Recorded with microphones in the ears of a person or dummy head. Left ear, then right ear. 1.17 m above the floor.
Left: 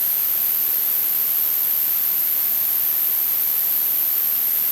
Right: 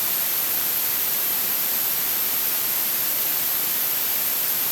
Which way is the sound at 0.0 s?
35° left (ahead or behind).